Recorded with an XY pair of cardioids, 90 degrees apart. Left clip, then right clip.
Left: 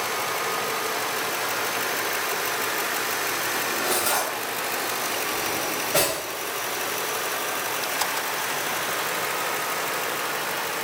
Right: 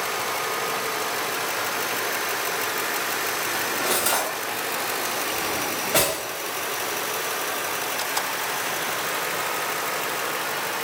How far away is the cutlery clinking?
About 1.1 m.